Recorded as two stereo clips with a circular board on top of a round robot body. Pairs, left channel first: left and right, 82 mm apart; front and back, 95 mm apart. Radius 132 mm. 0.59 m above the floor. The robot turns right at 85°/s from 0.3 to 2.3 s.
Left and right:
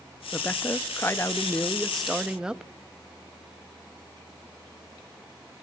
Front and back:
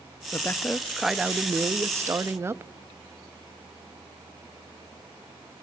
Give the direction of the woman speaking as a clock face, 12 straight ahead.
11 o'clock.